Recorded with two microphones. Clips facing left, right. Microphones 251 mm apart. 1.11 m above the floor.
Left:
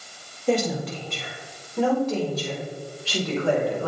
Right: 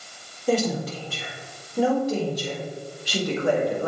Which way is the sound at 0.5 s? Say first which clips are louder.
Even; centre (ahead or behind).